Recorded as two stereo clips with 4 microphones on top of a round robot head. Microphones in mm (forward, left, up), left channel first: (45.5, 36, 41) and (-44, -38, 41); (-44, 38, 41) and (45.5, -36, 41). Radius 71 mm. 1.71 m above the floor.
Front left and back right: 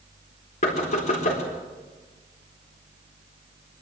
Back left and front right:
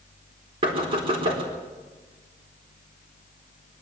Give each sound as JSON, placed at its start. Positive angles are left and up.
{"t": 0.6, "sound": "knocking", "azimuth_deg": 10, "distance_m": 4.0}